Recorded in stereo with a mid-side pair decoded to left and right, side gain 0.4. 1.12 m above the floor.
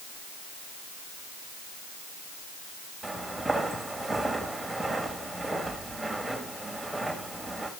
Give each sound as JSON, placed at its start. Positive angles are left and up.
{"t": 3.0, "sound": "footsteps", "azimuth_deg": -5, "distance_m": 4.0}